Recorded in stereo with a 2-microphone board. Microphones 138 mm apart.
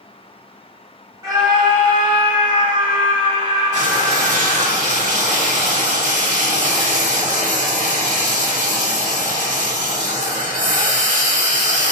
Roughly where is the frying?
Right.